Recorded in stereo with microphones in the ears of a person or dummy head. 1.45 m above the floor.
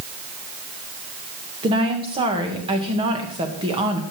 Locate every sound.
1.6 s a woman speaking: 25° right (ahead or behind), 2 m